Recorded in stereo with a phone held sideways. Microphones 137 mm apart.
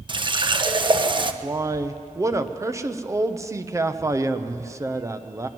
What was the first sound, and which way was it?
A running tap, 35° right (ahead or behind).